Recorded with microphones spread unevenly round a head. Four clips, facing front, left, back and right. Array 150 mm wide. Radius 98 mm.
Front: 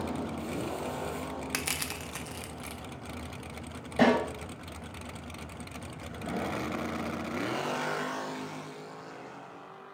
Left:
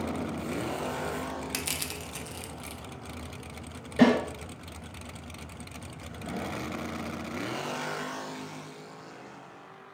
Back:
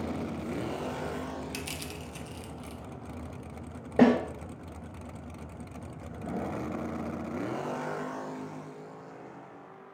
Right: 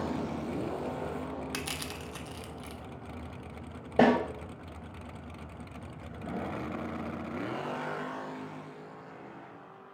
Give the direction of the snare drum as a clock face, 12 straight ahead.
5 o'clock.